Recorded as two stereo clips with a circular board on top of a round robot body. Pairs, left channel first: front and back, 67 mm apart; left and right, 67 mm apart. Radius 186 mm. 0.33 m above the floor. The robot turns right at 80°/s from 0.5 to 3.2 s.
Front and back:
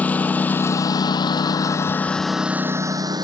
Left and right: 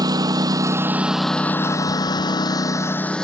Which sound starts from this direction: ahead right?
A lawn mower, at 0.0 s.